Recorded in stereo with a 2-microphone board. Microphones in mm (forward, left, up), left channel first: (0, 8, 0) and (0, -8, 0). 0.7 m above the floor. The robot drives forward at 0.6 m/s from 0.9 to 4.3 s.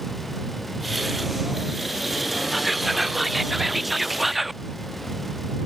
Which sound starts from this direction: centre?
Whispering, at 2.5 s.